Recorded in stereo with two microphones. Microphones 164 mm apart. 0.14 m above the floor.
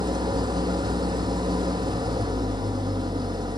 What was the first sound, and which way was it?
An engine running, 25° right (ahead or behind).